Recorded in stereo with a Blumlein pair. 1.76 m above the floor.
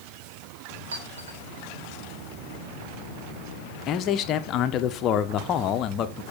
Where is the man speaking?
30° left, 1.5 m.